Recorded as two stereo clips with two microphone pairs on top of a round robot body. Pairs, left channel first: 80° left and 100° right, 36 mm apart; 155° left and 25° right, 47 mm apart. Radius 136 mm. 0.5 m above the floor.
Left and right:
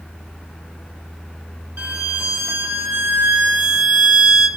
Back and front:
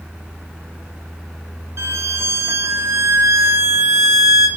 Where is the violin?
65° right, 2 m.